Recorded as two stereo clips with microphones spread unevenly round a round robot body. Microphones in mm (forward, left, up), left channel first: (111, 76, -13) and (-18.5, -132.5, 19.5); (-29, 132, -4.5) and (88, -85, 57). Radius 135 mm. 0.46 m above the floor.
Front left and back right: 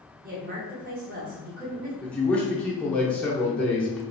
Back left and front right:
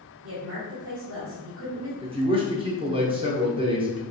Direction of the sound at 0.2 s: 80° right.